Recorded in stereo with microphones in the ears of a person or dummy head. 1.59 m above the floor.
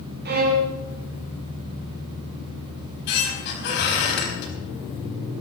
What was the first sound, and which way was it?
A violin, 50° right (ahead or behind).